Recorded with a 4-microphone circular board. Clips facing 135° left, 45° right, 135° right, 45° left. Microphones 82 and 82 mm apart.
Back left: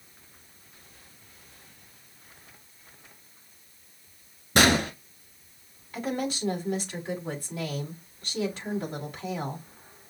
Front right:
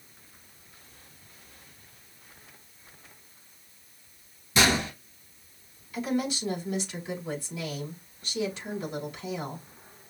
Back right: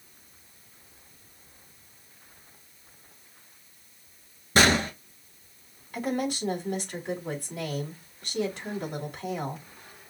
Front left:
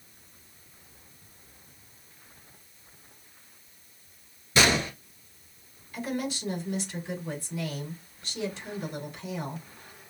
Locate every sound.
4.5 s a gunshot: 175° left, 1.5 m
5.9 s a woman speaking: 175° right, 3 m